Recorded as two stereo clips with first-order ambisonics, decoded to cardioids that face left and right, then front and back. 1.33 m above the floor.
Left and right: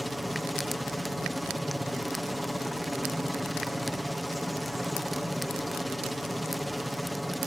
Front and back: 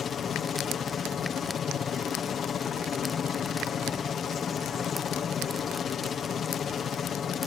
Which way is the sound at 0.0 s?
Straight ahead.